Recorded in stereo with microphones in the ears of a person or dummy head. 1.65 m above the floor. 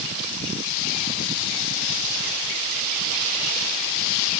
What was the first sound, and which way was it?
Only background noise.